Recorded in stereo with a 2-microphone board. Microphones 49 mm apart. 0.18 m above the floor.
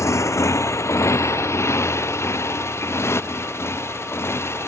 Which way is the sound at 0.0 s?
80° left.